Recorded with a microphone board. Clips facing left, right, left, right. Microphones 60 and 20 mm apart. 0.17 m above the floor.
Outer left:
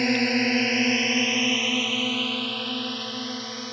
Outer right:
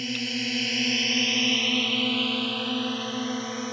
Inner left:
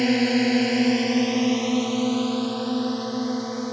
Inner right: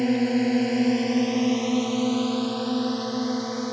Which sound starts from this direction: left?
A drone, at 0.0 s.